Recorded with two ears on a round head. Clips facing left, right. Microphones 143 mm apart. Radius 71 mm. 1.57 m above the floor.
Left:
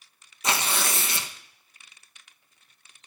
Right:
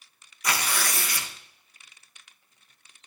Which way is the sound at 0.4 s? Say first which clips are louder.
Left 1 dB; 20° left (ahead or behind).